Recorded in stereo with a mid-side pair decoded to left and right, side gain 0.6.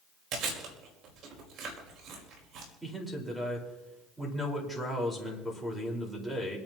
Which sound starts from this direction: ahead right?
Chewing, at 0.3 s.